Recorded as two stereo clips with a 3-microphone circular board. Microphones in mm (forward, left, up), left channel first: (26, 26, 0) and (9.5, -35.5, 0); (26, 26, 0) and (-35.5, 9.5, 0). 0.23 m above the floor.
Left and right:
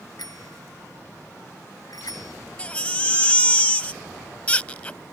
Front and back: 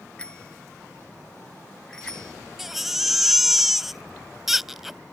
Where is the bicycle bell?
90° left; by 2.3 s 95° left.